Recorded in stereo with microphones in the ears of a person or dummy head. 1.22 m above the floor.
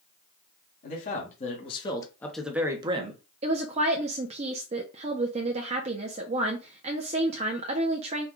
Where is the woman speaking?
40° right (ahead or behind), 0.6 m.